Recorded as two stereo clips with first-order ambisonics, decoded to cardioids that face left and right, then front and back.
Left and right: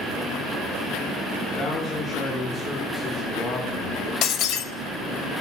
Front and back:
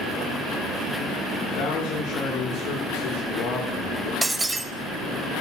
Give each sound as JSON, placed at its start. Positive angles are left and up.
{"t": 1.4, "sound": "a man speaking", "azimuth_deg": 25, "distance_m": 1.6}
{"t": 4.2, "sound": "breaking glass", "azimuth_deg": 100, "distance_m": 0.7}